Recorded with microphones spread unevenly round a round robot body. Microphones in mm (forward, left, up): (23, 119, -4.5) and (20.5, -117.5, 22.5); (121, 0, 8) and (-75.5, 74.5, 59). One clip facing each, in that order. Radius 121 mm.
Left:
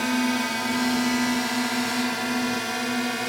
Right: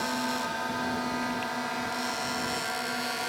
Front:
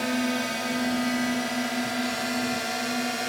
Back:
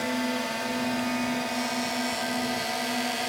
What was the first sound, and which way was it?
A drone, 55° left.